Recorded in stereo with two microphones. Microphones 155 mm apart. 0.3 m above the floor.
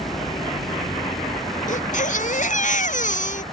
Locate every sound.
0.0 s a helicopter: 35° left (ahead or behind); by 3.5 s 40° left (ahead or behind)
1.7 s a baby crying: 55° left (ahead or behind)